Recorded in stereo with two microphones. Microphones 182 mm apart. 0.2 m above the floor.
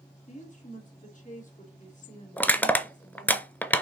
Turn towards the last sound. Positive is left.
turn(degrees=10)  # may be behind; listen again after turning